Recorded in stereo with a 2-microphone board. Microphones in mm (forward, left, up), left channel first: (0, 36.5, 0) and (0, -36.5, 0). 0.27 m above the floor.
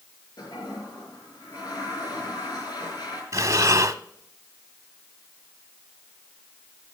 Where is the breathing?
50° right (ahead or behind), 0.7 m.